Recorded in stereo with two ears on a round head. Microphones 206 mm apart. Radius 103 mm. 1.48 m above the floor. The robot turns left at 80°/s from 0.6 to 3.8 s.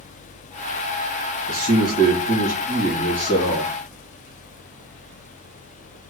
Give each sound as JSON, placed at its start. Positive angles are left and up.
{"t": 1.5, "sound": "a man speaking", "azimuth_deg": -55, "distance_m": 1.6}